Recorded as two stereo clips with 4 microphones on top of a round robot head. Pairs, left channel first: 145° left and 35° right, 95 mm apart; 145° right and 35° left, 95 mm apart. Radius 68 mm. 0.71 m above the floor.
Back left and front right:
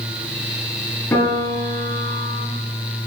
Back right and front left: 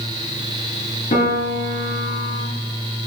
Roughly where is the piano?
Behind right.